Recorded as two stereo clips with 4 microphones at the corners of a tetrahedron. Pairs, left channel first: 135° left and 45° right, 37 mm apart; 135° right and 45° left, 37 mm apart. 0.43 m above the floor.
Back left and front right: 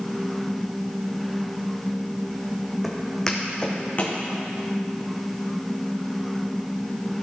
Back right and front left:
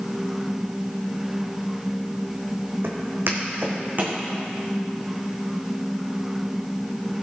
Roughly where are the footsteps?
Ahead left.